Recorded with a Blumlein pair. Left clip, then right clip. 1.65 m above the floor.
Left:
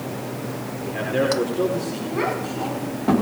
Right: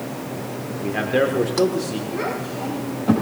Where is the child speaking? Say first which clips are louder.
Left 4 dB; 10° left, 6.5 m.